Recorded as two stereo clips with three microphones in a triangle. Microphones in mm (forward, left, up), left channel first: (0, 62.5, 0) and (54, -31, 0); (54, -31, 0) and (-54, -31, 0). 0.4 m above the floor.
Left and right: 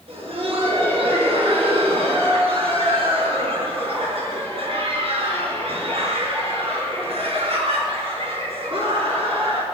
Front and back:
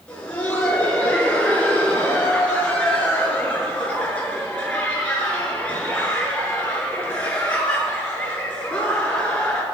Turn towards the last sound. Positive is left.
turn(degrees=-80)